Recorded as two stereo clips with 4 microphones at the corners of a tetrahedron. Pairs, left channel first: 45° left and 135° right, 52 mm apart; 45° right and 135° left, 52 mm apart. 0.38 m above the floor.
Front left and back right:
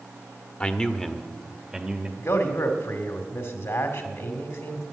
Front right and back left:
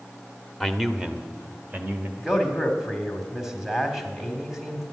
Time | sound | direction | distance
0.6 | a man speaking | 45° left | 0.9 m
2.2 | a man speaking | 55° left | 2 m